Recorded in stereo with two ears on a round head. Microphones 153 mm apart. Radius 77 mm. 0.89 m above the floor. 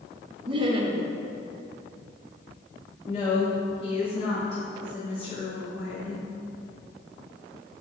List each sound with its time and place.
0.5 s laughter: 30° right (ahead or behind), 1.0 m
3.0 s a woman speaking: 35° left (ahead or behind), 2.5 m